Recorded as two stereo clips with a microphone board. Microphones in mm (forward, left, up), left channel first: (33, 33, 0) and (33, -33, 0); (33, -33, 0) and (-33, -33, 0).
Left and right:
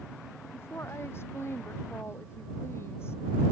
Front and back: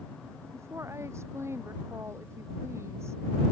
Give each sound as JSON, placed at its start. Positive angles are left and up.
{"t": 0.5, "sound": "a woman speaking", "azimuth_deg": 140}